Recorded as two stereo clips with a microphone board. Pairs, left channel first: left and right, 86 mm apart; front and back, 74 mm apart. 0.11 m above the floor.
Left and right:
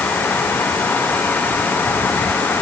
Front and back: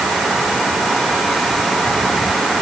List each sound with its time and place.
Only background noise.